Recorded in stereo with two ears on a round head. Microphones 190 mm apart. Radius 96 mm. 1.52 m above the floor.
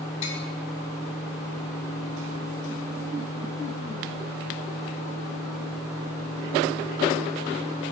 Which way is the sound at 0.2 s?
75° left (ahead or behind).